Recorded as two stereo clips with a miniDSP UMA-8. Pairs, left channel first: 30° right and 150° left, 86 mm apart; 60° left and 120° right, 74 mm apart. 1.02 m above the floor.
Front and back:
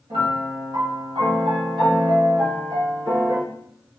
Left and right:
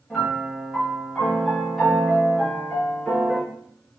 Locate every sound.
0.1 s a piano: 150° left, 1.9 m